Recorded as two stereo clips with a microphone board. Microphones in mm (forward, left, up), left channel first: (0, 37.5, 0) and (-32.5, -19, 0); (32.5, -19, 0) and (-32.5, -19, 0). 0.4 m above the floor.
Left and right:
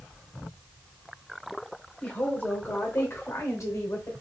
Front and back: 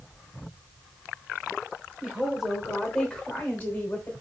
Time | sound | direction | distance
2.0 | a woman speaking | 115° left | 1.1 m